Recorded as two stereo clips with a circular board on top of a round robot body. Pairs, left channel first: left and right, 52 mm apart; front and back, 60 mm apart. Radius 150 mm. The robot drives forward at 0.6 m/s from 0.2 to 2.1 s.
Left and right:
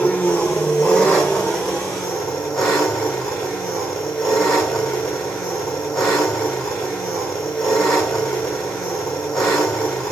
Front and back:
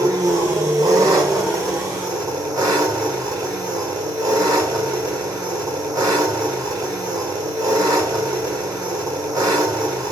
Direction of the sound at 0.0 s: 160° left.